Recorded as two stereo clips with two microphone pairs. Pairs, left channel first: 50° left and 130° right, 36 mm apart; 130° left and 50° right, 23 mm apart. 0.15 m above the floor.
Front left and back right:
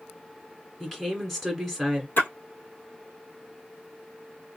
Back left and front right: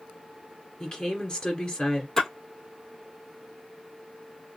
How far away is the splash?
About 1.3 m.